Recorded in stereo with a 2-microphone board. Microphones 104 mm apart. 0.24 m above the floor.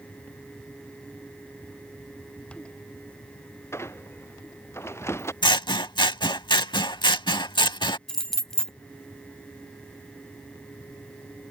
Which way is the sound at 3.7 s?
25° left (ahead or behind).